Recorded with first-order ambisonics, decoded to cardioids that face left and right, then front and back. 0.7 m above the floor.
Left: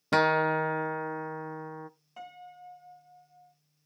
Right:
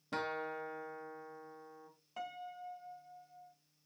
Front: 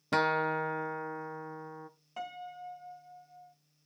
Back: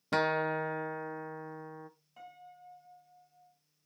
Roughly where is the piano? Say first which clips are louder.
Right 1 dB, front 11 dB; ahead.